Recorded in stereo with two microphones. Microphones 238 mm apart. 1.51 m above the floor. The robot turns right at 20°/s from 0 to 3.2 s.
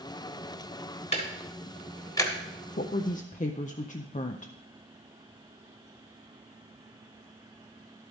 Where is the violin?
I don't hear a violin.